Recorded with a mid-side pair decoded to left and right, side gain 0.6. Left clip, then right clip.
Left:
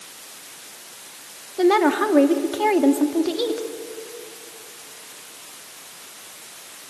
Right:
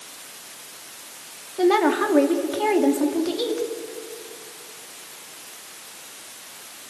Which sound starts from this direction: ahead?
A woman speaking, at 1.6 s.